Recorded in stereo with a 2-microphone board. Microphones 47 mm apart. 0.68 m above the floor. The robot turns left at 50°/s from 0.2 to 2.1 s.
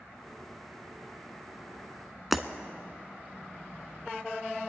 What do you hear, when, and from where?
2.3 s breaking glass: centre (ahead or behind), 0.6 m